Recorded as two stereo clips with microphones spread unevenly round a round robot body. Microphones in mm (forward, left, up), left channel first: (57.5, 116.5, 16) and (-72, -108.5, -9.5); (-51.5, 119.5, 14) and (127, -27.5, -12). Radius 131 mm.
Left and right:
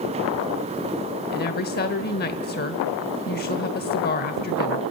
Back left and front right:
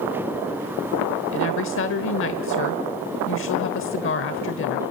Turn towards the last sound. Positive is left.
turn(degrees=115)